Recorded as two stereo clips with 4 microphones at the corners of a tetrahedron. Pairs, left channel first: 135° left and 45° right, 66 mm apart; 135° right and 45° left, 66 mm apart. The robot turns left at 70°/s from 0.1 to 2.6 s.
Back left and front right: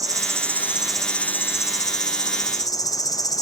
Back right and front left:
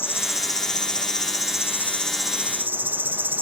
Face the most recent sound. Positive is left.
turn(degrees=110)